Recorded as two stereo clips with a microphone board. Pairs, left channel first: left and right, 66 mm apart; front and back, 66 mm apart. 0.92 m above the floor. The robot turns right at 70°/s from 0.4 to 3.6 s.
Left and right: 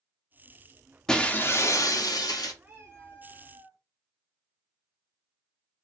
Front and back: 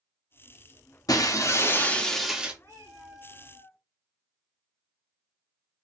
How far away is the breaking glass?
About 0.8 m.